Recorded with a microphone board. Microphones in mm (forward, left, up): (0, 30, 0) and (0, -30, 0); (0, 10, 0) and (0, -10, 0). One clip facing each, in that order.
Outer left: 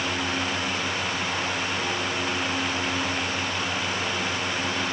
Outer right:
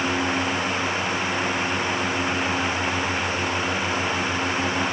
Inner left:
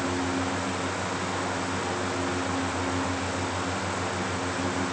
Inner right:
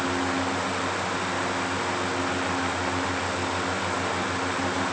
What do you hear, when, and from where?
Only background noise.